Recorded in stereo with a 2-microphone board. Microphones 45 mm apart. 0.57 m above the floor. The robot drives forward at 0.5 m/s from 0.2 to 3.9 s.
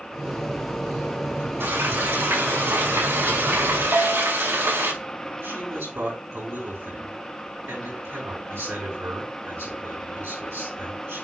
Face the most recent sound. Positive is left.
turn(degrees=-80)